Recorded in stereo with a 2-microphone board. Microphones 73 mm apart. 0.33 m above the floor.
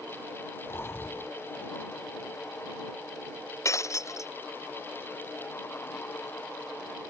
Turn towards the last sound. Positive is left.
turn(degrees=40)  # may be behind; listen again after turning